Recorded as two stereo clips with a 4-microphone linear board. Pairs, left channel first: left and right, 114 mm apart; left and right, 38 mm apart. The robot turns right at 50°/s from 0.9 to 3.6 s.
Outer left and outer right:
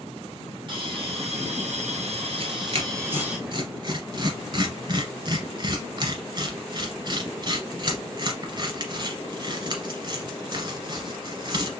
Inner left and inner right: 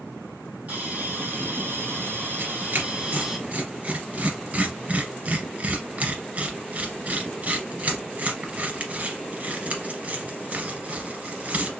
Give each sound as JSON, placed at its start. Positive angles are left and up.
{"t": 0.7, "sound": "a hiss", "azimuth_deg": -135, "distance_m": 1.6}
{"t": 2.4, "sound": "tearing paper", "side_deg": -55, "distance_m": 1.6}